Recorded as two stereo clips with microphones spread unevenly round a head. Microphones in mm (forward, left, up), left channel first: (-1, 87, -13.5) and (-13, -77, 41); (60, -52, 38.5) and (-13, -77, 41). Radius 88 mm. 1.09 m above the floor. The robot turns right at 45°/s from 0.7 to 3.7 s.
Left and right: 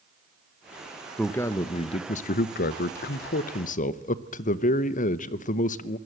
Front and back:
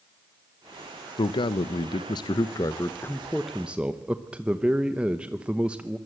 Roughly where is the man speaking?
Ahead.